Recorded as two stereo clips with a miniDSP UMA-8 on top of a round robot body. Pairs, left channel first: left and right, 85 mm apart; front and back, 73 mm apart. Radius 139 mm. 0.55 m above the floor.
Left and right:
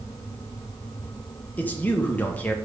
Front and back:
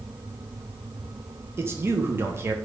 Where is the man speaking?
150° left, 0.9 m.